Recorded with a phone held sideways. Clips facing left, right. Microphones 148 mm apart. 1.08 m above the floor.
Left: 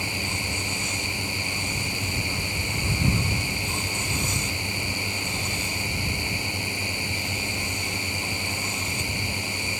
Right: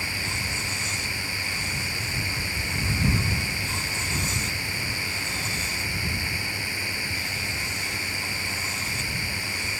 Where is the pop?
I don't hear a pop.